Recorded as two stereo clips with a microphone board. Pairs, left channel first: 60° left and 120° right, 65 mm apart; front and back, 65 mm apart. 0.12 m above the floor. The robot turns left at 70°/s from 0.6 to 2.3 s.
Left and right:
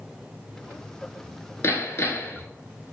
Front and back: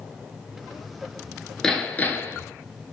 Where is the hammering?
75° left, 0.7 m; by 2.5 s 30° left, 0.7 m.